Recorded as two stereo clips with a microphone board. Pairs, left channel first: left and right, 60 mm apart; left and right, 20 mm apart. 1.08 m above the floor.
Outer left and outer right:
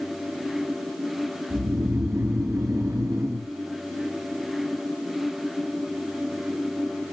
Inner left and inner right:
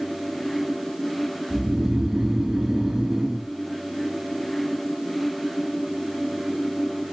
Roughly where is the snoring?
Right.